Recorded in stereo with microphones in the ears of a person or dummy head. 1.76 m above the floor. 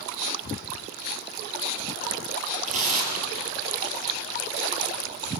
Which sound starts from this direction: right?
Tearing paper, at 2.6 s.